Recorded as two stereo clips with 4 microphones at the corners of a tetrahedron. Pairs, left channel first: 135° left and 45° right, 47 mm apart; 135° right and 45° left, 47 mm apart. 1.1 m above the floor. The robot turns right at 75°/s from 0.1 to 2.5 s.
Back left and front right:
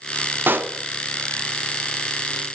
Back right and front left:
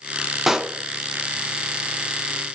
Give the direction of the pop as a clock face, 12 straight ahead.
1 o'clock.